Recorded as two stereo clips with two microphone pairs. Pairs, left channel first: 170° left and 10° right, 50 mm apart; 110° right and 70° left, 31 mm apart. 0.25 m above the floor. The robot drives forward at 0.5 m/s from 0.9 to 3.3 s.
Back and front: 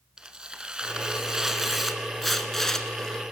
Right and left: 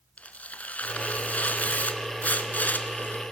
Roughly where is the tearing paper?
Right.